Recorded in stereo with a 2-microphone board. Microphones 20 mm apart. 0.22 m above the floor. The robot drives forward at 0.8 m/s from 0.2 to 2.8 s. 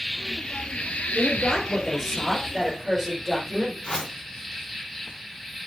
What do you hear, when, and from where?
0.0 s an insect: 30° left (ahead or behind), 0.9 m; by 5.7 s 20° left (ahead or behind), 1.4 m
1.1 s a woman speaking: 20° left (ahead or behind), 4.5 m; by 3.7 s 15° left (ahead or behind), 6 m
3.8 s a whoosh: 40° left (ahead or behind), 2.5 m